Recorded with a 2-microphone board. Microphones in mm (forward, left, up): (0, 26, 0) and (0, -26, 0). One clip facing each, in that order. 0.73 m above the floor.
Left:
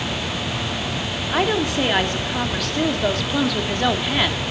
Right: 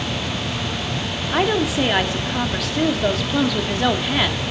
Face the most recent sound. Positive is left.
turn(degrees=0)  # may be behind; listen again after turning